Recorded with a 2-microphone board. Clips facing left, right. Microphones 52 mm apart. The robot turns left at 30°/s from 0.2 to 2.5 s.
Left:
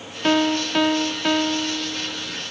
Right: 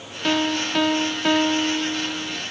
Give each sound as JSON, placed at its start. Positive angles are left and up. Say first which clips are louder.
{"t": 0.2, "sound": "a piano", "louder": "left 3 dB", "azimuth_deg": 30, "distance_m": 0.5}